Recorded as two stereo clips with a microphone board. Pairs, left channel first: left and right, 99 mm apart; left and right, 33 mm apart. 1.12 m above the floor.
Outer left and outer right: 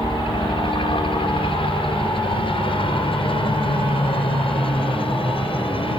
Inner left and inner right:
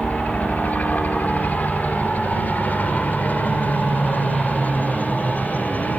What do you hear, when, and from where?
0.0 s a helicopter: 55° left (ahead or behind); by 6.0 s 60° left (ahead or behind)